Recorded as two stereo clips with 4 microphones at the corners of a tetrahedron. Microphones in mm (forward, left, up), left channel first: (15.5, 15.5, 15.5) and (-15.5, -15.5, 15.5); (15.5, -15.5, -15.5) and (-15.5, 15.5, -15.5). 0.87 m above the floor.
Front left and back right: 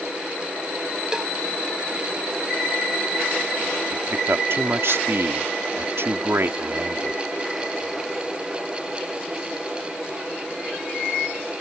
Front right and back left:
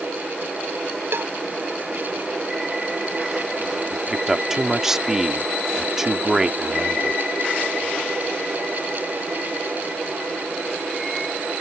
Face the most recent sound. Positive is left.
turn(degrees=-145)